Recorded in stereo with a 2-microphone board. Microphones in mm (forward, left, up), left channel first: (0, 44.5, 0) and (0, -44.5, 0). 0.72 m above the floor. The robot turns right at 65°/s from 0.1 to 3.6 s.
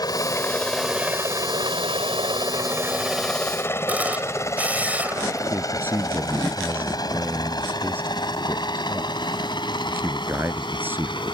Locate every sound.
0.0 s a helicopter: 45° left (ahead or behind); by 11.3 s 60° left (ahead or behind)
3.9 s a camera shutter: 20° right (ahead or behind)
5.5 s a man speaking: 25° right (ahead or behind)